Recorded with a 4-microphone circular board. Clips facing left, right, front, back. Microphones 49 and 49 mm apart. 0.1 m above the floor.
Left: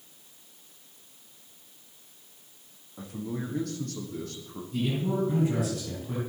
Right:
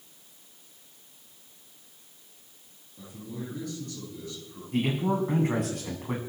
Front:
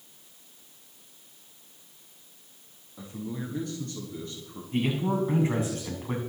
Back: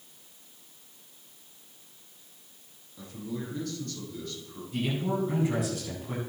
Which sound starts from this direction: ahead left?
A man speaking, at 3.0 s.